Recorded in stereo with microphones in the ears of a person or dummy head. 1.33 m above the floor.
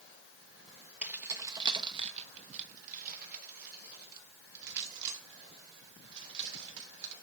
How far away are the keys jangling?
About 1.1 m.